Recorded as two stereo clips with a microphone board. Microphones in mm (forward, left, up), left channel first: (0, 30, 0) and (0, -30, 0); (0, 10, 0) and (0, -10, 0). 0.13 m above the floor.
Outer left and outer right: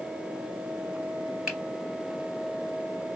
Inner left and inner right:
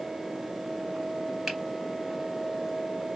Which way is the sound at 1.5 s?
5° right (ahead or behind).